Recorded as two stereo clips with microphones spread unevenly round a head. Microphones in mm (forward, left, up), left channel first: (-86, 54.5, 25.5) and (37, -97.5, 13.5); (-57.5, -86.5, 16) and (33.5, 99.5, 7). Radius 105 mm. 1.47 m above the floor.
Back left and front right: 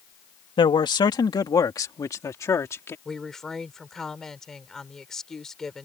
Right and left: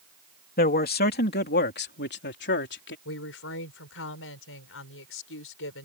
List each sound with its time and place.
0.6 s a man speaking: 165° right; by 3.0 s 155° right
3.0 s a woman speaking: 145° right